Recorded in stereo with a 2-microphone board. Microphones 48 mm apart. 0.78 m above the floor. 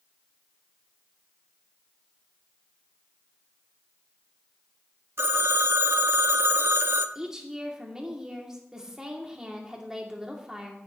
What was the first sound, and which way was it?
A phone ringing, 55° right (ahead or behind).